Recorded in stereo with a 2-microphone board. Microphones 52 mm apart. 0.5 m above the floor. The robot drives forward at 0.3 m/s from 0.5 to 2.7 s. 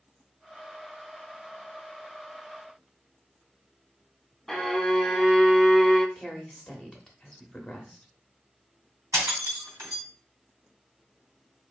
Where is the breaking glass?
80° right, 2.5 m.